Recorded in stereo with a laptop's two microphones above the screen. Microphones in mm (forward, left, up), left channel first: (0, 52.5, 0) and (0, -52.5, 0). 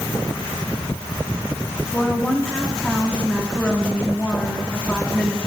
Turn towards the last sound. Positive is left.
turn(degrees=10)  # may be behind; listen again after turning